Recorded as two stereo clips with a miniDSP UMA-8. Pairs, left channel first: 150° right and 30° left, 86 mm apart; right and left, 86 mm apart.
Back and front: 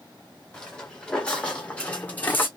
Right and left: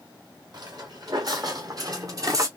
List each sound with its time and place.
0.5 s footsteps: 130° left, 1.7 m; by 2.5 s 145° left, 0.7 m